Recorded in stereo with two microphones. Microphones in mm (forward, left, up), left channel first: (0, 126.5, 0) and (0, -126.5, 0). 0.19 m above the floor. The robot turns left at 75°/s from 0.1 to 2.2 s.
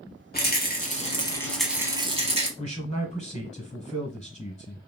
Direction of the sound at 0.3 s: 95° left.